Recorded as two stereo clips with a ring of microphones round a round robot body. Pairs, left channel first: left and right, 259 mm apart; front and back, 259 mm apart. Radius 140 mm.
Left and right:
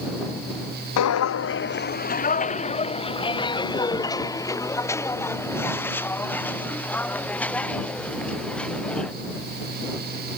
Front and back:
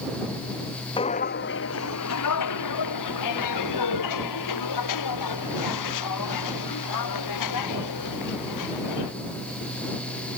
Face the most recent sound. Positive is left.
turn(degrees=5)